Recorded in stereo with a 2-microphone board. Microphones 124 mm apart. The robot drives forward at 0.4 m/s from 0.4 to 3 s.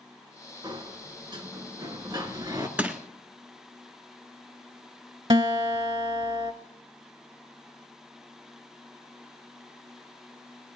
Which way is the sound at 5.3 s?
45° right (ahead or behind).